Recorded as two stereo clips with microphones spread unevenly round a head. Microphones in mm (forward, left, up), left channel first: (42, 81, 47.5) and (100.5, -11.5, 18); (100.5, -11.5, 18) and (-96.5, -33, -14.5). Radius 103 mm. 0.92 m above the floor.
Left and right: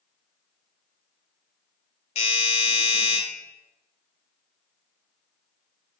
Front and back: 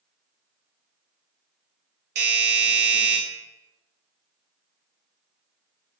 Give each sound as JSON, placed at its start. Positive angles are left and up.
{"t": 2.1, "sound": "a doorbell", "azimuth_deg": 170, "distance_m": 1.2}